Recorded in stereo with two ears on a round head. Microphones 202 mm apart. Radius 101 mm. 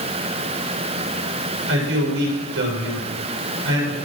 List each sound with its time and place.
1.7 s a man speaking: 55° right (ahead or behind), 6.5 m